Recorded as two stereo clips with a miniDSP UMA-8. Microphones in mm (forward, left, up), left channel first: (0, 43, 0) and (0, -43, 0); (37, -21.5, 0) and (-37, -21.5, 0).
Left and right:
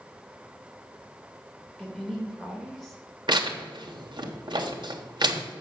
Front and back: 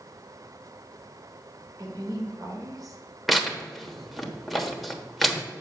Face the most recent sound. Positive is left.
turn(degrees=-90)